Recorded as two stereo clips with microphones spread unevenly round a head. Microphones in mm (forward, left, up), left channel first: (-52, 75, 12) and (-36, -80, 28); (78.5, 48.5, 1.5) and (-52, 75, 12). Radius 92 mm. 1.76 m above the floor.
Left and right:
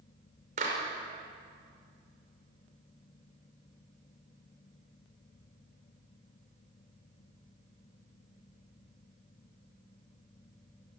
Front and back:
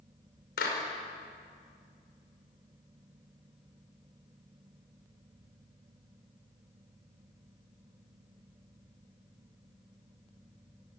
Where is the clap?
30° right, 5.5 m.